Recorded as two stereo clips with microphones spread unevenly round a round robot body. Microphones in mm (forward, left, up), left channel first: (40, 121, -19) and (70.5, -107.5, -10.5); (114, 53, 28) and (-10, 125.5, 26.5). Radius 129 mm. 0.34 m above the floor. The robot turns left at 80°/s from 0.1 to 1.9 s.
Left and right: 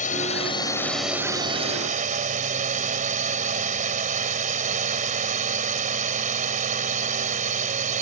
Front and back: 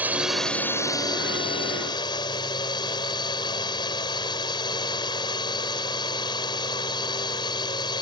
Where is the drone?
80° left; by 8.0 s 65° right.